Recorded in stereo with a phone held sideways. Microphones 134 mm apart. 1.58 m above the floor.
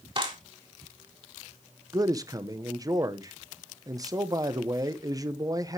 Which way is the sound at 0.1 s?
40° right (ahead or behind).